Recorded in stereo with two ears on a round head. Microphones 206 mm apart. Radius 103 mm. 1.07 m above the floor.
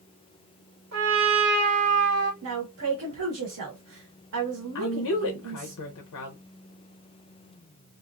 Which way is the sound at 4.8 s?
75° left (ahead or behind).